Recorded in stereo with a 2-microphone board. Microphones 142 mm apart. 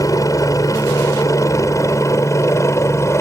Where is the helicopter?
25° left (ahead or behind); by 3.2 s 20° left (ahead or behind).